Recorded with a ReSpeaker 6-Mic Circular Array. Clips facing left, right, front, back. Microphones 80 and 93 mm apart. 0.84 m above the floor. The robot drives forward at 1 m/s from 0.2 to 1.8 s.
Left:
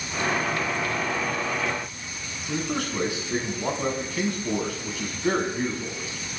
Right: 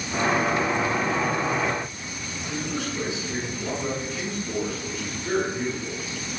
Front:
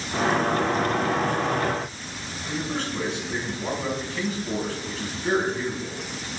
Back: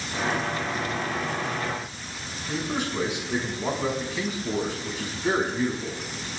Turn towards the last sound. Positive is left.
turn(degrees=105)